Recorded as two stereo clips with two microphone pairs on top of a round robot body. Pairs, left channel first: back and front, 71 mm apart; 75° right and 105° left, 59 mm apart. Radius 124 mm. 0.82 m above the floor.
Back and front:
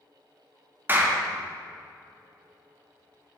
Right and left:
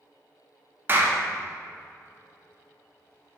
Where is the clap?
55° left, 1.2 m.